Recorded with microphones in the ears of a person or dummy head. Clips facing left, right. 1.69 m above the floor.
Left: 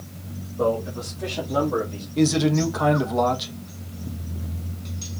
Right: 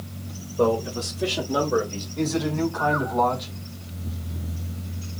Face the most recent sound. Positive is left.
turn(degrees=35)  # may be behind; listen again after turning